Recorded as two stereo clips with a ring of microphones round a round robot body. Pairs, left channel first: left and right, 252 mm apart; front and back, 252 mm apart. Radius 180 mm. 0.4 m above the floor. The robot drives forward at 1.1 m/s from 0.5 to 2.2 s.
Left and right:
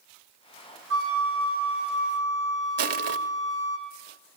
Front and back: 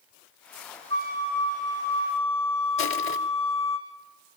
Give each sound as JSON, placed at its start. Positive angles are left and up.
{"t": 0.9, "sound": "a flute", "azimuth_deg": -120, "distance_m": 4.0}
{"t": 2.8, "sound": "crushing", "azimuth_deg": -70, "distance_m": 0.8}